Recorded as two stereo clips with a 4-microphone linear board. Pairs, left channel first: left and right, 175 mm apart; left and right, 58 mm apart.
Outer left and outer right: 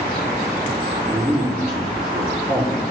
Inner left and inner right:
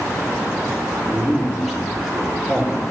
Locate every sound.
1.1 s a man speaking: 5° right (ahead or behind), 3.5 m